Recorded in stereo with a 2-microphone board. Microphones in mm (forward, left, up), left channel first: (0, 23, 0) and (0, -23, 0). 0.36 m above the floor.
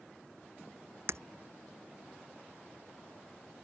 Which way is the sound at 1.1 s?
70° right (ahead or behind).